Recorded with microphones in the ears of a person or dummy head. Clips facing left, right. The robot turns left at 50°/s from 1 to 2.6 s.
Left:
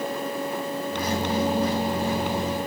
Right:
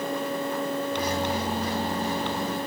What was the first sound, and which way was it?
Only background noise.